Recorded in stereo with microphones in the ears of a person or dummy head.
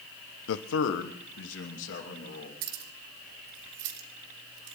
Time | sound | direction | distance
0.5 | a man speaking | 80° left | 0.9 m
2.6 | keys jangling | 65° right (ahead or behind) | 2 m